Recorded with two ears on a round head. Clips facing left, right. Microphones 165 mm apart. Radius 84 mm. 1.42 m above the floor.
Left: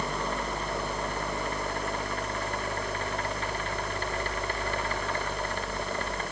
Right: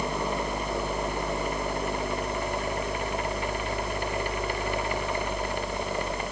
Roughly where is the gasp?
I don't hear a gasp.